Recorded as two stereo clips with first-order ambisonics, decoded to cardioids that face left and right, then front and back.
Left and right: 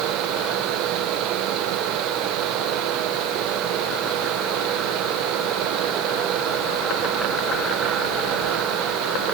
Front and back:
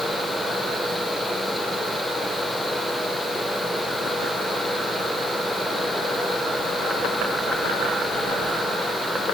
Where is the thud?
I don't hear a thud.